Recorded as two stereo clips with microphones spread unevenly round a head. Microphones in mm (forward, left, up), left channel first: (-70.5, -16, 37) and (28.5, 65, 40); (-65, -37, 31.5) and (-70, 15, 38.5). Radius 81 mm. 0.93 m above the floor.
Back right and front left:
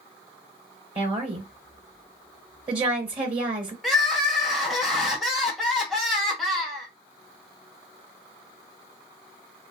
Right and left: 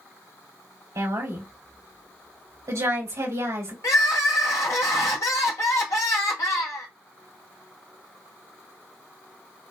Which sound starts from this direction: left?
A woman speaking, at 0.9 s.